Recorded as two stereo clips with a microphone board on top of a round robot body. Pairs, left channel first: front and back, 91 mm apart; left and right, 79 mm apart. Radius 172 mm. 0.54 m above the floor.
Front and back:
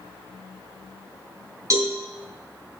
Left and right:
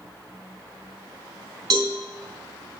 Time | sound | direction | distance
1.7 | a cowbell | 120° right | 2.5 m